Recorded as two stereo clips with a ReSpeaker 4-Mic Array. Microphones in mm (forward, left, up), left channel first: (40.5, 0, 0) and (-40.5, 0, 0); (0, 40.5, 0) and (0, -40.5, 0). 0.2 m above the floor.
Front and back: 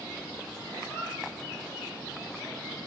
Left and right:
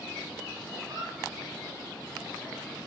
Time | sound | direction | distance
0.8 | a squeak | 55° right | 1.5 m